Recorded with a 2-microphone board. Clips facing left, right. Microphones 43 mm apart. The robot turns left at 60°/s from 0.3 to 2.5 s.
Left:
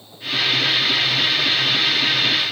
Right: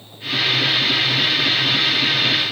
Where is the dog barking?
I don't hear a dog barking.